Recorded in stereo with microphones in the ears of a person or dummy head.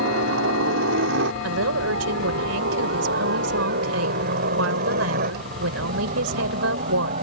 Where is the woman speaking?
80° right.